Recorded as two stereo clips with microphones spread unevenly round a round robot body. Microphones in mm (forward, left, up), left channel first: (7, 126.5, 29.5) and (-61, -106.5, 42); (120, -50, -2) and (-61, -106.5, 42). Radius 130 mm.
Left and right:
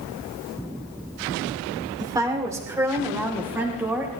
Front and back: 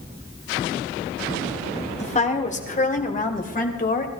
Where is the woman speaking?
30° right, 2.5 m; by 4.1 s 20° right, 3.5 m.